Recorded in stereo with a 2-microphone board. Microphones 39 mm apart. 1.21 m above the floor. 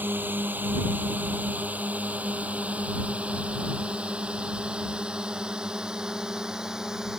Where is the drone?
55° right (ahead or behind); by 7.2 s 15° right (ahead or behind).